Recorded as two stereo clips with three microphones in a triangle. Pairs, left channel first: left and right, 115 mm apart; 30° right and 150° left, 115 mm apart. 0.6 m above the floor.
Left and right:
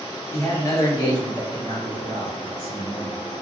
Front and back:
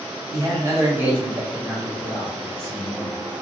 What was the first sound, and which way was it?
A man speaking, 135° left.